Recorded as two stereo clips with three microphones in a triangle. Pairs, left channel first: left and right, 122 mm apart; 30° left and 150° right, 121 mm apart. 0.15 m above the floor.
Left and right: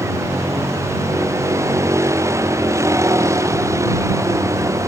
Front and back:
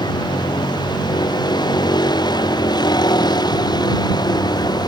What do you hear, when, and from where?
0.0 s a vehicle: 25° right